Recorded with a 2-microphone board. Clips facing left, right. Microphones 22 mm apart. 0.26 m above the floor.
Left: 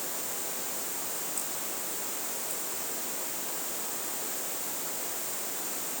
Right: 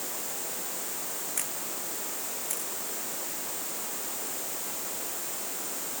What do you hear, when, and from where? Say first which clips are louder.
1.4 s a camera shutter: right 1 dB; 70° right (ahead or behind)